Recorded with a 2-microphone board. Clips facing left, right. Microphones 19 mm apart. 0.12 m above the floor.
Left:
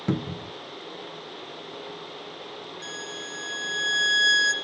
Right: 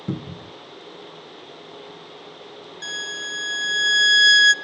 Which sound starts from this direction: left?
A cupboard door, at 0.1 s.